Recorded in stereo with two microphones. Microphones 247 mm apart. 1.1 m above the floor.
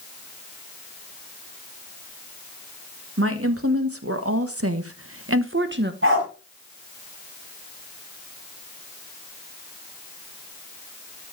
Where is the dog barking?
55° right (ahead or behind), 3.5 m.